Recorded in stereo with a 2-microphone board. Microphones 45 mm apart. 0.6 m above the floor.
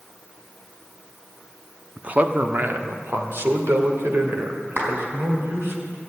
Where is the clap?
50° right (ahead or behind), 4 m.